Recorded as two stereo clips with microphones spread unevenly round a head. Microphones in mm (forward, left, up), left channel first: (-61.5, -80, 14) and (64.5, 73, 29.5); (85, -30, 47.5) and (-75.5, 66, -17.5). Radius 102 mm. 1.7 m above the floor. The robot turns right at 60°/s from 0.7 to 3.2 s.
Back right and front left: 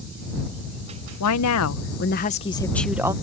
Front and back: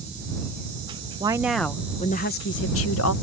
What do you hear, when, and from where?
1.2 s a woman speaking: 140° right; by 3.1 s 25° right